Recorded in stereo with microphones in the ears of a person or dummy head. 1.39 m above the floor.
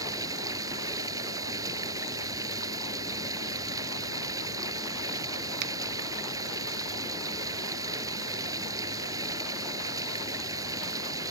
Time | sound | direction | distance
0.0 | running water | 20° right (ahead or behind) | ?
5.6 | a finger snap | 65° right (ahead or behind) | ?